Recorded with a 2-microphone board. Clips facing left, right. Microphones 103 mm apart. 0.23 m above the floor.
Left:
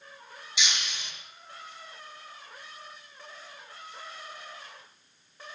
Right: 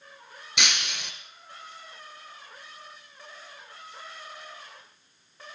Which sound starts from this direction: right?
Breaking glass, at 0.6 s.